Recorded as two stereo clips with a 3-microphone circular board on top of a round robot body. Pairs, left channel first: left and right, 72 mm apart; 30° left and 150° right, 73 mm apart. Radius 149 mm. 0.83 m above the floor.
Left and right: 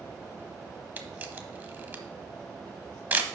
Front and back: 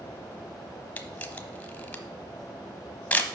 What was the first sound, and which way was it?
A camera shutter, 35° right.